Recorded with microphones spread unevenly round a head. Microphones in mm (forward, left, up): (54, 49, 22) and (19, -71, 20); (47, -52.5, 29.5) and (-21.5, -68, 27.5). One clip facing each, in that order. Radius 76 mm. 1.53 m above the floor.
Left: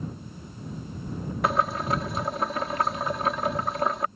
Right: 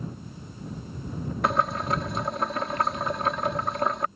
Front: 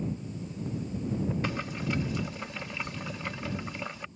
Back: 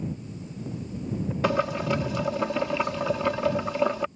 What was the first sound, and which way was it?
Boiling, 160° left.